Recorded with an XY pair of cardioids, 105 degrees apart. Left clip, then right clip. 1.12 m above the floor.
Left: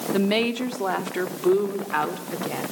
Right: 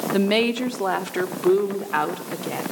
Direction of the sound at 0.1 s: 15° right.